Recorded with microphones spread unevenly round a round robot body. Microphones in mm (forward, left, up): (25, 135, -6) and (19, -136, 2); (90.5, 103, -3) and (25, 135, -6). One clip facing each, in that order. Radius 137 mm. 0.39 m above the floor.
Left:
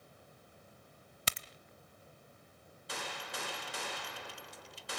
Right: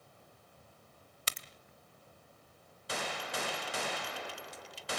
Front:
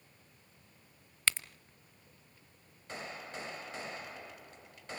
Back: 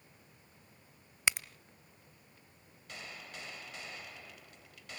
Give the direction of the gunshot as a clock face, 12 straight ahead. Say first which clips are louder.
Right 5 dB, front 5 dB; 3 o'clock.